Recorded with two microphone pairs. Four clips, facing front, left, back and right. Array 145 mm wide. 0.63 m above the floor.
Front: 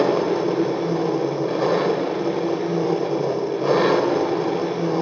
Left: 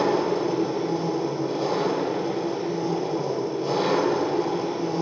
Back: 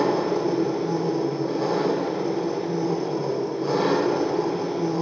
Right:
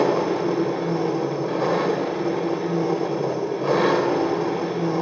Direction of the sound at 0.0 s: 20° right.